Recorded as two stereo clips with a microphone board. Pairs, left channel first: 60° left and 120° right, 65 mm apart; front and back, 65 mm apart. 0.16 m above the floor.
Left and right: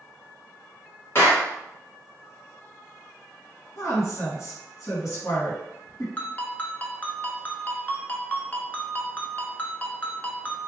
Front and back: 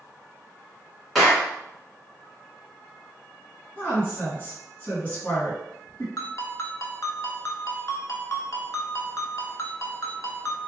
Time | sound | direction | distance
1.1 | a clap | 90° left | 1.5 m
3.8 | a woman speaking | 55° left | 1.9 m
6.2 | a ringtone | 5° left | 0.7 m